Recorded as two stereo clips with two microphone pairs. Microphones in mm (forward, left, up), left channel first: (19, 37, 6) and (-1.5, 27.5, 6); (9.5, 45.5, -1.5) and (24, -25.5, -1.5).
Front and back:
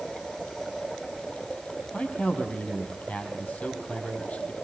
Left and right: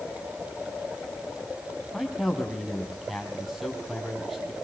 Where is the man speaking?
5° left, 5 m.